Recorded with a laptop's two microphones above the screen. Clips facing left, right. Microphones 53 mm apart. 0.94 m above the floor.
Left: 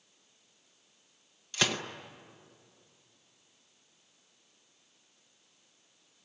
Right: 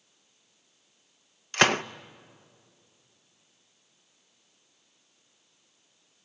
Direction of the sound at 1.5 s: 45° right (ahead or behind).